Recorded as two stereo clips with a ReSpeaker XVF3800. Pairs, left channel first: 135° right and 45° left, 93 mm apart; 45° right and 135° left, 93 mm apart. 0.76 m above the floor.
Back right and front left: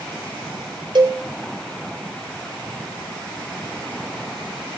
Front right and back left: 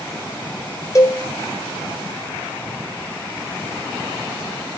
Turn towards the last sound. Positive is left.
turn(degrees=10)